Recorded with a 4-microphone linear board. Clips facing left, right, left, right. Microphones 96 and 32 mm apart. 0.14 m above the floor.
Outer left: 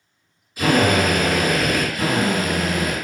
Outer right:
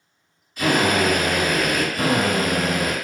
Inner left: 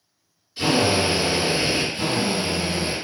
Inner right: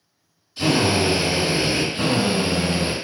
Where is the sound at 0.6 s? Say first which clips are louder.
Outer left 2 dB, inner right 1 dB; 10° left (ahead or behind), 1.8 m.